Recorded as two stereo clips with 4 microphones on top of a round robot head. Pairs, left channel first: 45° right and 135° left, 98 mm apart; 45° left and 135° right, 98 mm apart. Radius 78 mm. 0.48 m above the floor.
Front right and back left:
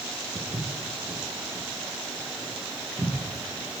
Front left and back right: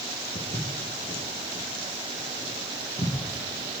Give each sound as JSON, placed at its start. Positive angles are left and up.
{"t": 0.3, "sound": "footsteps", "azimuth_deg": 65, "distance_m": 4.5}